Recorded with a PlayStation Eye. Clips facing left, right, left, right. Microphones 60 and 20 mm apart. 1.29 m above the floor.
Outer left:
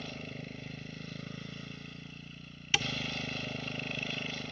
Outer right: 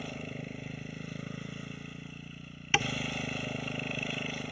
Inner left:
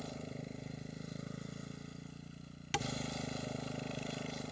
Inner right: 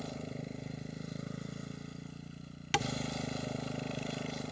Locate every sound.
0.0 s a motorcycle: 10° right (ahead or behind)
2.7 s tapping: 25° right (ahead or behind)